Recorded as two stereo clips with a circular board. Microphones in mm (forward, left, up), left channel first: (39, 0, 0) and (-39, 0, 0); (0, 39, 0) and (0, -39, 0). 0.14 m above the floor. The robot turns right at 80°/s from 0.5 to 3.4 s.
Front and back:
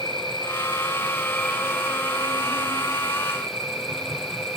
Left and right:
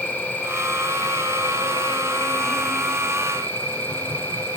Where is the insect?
15° left, 1.4 m; by 4.6 s 115° right, 1.4 m.